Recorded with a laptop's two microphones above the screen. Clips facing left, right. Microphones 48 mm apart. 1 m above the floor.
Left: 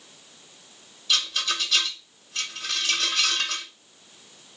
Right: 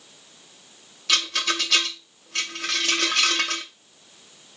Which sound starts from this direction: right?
A rattle, at 1.1 s.